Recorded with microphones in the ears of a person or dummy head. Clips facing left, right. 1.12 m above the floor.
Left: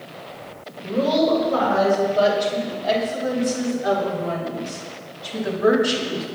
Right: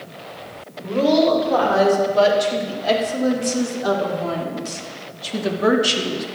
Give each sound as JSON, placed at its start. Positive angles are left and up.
{"t": 0.8, "sound": "a woman speaking", "side_deg": -85, "distance_m": 5.5}